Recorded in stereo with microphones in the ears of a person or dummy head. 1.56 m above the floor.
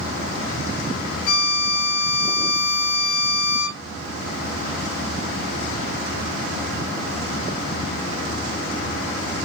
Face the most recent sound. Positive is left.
turn(degrees=55)  # may be behind; listen again after turning